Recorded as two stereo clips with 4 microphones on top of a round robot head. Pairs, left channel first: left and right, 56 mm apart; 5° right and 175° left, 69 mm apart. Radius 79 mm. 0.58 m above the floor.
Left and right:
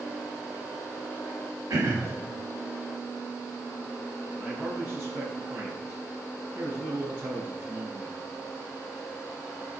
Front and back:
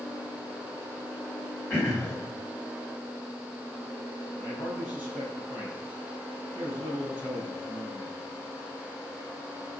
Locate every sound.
1.7 s throat clearing: 70° right, 3 m
4.3 s a man speaking: 25° right, 5.5 m